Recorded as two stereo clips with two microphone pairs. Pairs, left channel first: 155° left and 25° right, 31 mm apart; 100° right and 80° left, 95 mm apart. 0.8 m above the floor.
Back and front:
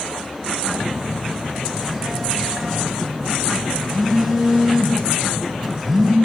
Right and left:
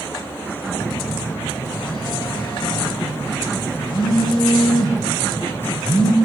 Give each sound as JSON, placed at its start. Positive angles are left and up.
{"t": 0.7, "sound": "a phone buzzing", "azimuth_deg": -105, "distance_m": 1.1}